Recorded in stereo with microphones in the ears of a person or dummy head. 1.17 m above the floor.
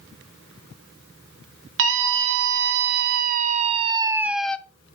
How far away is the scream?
About 1.9 m.